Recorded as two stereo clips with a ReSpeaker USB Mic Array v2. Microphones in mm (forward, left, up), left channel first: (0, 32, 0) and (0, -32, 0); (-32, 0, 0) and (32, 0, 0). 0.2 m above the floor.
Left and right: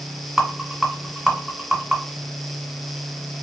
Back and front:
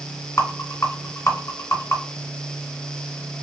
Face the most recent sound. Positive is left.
turn(degrees=-175)